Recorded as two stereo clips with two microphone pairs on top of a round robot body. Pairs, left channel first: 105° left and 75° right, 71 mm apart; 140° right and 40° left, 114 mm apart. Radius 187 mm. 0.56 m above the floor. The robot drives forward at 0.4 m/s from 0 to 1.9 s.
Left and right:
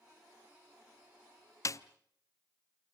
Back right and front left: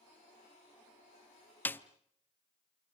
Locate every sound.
1.6 s a snare drum: 145° left, 0.6 m; by 1.8 s 150° left, 0.7 m